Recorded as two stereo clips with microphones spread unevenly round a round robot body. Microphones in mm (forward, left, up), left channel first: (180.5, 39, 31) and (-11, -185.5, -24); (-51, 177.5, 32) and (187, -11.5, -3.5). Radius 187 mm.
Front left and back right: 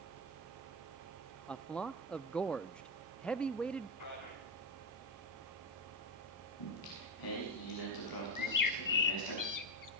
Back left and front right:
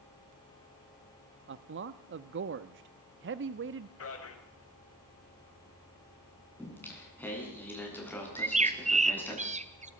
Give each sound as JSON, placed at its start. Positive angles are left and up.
{"t": 1.5, "sound": "a man speaking", "azimuth_deg": -50, "distance_m": 0.7}
{"t": 4.0, "sound": "a man speaking", "azimuth_deg": 100, "distance_m": 5.0}
{"t": 6.6, "sound": "singing", "azimuth_deg": 55, "distance_m": 8.0}
{"t": 8.4, "sound": "a bird", "azimuth_deg": 30, "distance_m": 1.6}